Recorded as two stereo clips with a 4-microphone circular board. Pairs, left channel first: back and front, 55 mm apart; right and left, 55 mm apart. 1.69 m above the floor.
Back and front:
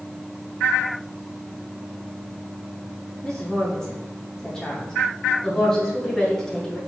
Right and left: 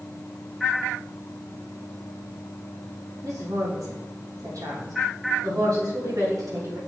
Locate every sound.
3.2 s a woman speaking: 100° left, 3.5 m